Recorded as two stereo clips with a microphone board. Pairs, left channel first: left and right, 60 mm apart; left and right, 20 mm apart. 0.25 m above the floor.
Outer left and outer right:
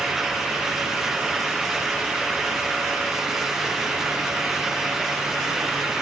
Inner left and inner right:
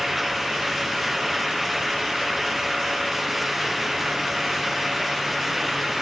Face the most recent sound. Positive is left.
No sound to turn to.